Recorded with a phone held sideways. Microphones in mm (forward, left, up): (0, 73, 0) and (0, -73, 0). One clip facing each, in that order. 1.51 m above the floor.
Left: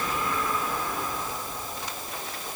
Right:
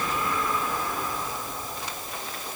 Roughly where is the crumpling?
No crumpling in this recording.